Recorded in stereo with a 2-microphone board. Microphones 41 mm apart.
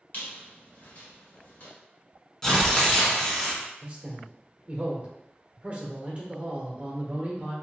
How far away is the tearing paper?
About 1.0 m.